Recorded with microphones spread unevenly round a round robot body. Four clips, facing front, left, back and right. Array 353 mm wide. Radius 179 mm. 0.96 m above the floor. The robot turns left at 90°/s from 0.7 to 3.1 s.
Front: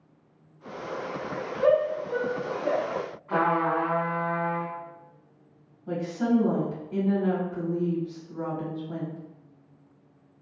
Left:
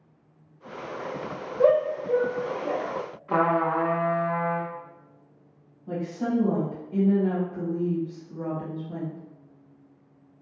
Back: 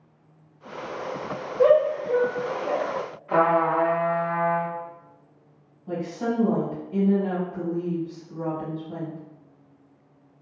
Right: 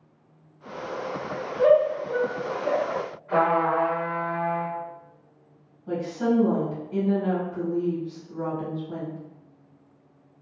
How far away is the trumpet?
About 0.7 m.